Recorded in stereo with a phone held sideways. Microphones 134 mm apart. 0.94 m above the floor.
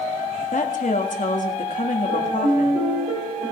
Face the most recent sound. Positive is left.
turn(degrees=-70)  # may be behind; listen again after turning